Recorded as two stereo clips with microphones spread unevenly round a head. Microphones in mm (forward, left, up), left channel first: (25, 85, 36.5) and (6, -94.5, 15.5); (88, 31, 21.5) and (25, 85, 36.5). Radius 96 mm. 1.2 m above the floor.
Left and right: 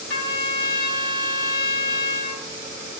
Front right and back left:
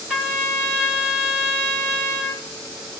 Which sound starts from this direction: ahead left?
A trumpet, at 0.1 s.